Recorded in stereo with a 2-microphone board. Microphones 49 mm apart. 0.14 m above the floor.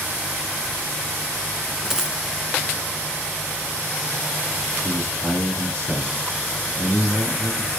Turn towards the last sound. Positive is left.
turn(degrees=-50)  # may be behind; listen again after turning